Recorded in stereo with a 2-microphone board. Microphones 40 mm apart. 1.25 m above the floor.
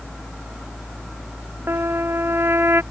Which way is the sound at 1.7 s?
85° right.